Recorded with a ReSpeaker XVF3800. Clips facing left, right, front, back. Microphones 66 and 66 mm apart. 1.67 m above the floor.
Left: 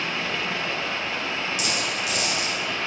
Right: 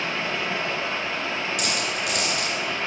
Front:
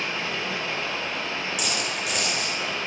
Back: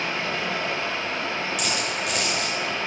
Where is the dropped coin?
90° right, 3.5 m.